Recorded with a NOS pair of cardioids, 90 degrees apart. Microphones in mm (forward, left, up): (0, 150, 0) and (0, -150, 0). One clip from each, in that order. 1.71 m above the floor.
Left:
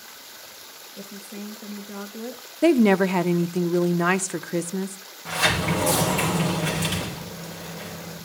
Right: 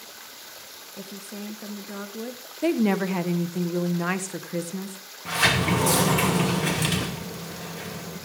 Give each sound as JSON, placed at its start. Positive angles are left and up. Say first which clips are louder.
{"t": 1.0, "sound": "a woman speaking", "louder": "even", "azimuth_deg": -10, "distance_m": 1.9}
{"t": 2.6, "sound": "a woman speaking", "louder": "left 6 dB", "azimuth_deg": 30, "distance_m": 1.2}
{"t": 5.2, "sound": "a sliding door", "louder": "right 1 dB", "azimuth_deg": -20, "distance_m": 5.5}